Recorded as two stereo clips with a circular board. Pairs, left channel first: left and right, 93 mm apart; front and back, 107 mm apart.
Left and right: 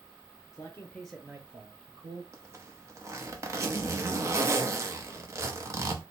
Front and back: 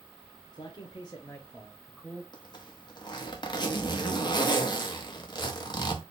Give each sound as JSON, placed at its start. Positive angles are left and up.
{"t": 0.5, "sound": "a man speaking", "azimuth_deg": 40, "distance_m": 0.9}
{"t": 2.3, "sound": "a zipper", "azimuth_deg": -35, "distance_m": 0.8}